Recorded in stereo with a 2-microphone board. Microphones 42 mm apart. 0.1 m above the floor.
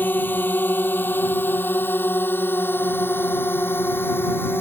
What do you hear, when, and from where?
0.0 s a drone: 50° left (ahead or behind); by 4.6 s 60° left (ahead or behind)